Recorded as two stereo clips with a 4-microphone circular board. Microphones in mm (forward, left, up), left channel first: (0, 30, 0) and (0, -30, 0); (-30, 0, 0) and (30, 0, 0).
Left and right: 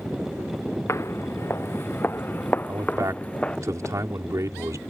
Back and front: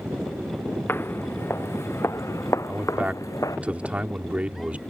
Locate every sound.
0.9 s footsteps: 130° left; by 3.6 s 160° left
2.7 s a man speaking: 65° right